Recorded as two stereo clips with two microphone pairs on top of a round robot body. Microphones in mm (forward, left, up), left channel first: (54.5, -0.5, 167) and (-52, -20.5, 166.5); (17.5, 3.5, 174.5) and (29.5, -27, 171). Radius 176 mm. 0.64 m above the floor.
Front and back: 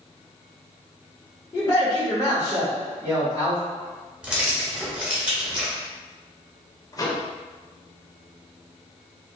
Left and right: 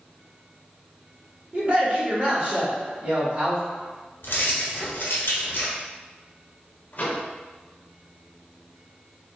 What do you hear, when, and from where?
1.5 s a man speaking: 50° right, 1.5 m
4.2 s keys jangling: 110° left, 0.9 m
6.9 s a microwave: 70° left, 0.8 m